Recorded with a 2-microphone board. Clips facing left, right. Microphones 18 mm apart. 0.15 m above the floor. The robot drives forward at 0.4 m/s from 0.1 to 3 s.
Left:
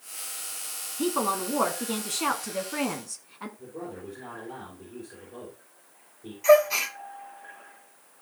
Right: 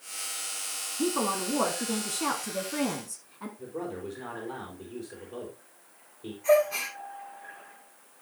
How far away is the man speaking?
About 4 m.